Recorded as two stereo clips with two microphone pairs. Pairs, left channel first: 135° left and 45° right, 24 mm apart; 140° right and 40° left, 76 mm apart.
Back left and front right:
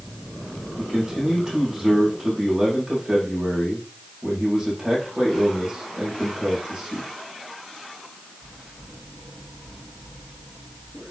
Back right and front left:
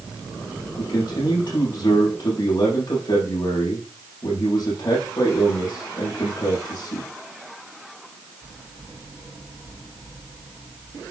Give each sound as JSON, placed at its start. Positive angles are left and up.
{"t": 0.8, "sound": "a man speaking", "azimuth_deg": -115, "distance_m": 6.0}